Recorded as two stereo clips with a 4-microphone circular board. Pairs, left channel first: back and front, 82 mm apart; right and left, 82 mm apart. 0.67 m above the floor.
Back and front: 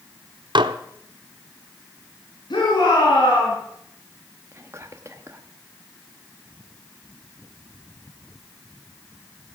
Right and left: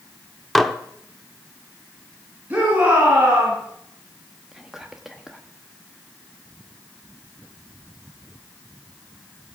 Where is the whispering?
10° left, 1.0 m.